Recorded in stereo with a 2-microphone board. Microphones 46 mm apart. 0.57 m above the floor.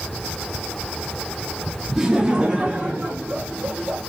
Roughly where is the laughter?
Centre.